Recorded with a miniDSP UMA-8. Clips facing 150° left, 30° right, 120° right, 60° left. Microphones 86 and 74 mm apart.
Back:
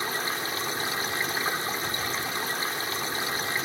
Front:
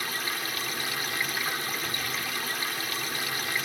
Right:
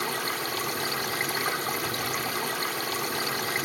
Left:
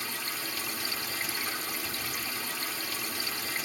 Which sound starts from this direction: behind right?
Running water, at 0.0 s.